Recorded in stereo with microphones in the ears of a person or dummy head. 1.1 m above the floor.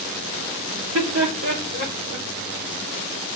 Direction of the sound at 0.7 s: 70° right (ahead or behind).